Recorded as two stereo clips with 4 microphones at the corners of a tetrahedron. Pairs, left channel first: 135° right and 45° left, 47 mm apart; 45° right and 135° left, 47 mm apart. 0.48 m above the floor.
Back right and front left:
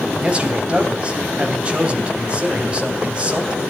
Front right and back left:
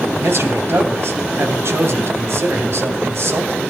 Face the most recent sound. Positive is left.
turn(degrees=110)